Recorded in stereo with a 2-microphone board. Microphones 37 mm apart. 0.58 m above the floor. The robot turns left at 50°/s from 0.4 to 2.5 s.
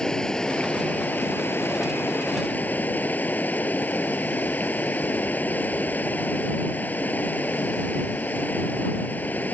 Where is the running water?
160° left; by 9.5 s 55° left.